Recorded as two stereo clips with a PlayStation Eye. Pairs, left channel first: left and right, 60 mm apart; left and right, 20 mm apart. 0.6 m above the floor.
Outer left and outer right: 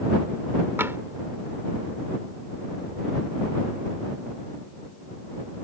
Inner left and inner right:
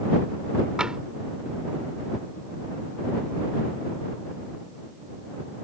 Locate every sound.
0.8 s tapping: 45° right (ahead or behind)